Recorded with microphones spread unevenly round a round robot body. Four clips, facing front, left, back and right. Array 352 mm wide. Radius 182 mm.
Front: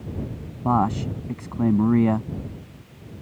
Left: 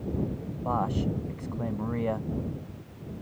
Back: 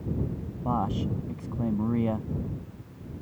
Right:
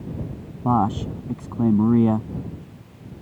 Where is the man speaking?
65° right.